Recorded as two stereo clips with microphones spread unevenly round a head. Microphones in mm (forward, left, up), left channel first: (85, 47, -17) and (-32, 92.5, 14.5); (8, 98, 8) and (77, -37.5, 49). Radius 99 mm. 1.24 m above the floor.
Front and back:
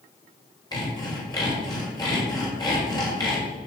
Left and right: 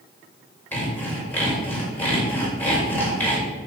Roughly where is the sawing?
Ahead left.